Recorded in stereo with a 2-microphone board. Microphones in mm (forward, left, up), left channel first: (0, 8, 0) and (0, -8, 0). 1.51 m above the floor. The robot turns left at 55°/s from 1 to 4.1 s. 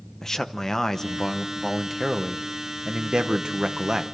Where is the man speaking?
35° left, 0.9 m; by 4.0 s 135° right, 0.9 m.